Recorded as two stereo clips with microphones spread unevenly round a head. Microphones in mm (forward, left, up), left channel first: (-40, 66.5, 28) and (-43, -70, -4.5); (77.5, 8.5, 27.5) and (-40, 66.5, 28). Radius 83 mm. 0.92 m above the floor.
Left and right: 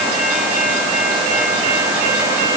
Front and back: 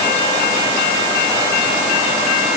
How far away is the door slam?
No door slam in this recording.